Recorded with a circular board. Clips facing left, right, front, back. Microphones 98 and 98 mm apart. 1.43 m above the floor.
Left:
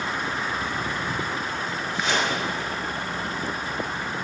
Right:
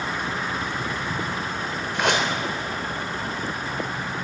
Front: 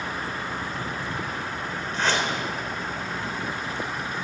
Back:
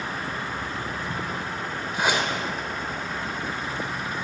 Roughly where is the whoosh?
Right.